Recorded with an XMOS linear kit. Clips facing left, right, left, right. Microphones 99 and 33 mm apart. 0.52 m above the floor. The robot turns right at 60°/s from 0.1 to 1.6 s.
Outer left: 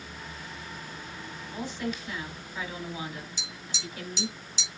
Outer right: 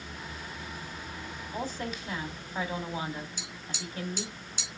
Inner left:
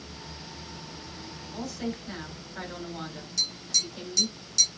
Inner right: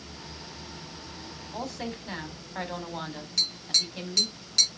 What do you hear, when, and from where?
1.5 s a woman speaking: 35° right (ahead or behind), 4 m; by 4.4 s 40° right (ahead or behind), 4 m
3.4 s tapping: 50° right (ahead or behind), 3.5 m